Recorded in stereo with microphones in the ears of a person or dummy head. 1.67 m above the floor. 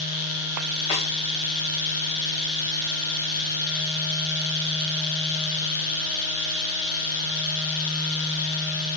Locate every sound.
0.9 s a snare drum: 35° left (ahead or behind), 3 m